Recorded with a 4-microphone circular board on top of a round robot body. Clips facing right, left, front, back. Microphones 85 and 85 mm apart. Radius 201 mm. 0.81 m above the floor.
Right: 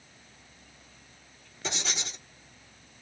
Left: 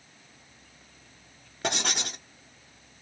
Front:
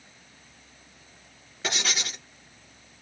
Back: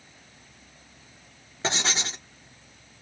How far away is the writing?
About 1.1 m.